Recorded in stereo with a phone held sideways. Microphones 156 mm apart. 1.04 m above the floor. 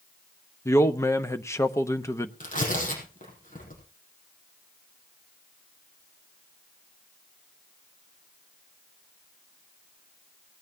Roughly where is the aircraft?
No aircraft in this recording.